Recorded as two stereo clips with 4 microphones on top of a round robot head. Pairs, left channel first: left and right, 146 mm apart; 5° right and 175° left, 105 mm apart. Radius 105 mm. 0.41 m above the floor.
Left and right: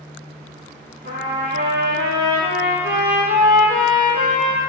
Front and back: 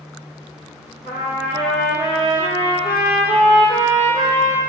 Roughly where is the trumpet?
Right.